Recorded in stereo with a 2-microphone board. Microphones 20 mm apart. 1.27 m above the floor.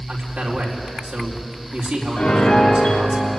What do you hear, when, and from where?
0.1 s a man speaking: 75° right (ahead or behind), 4.5 m
2.2 s a piano: 75° left (ahead or behind), 3 m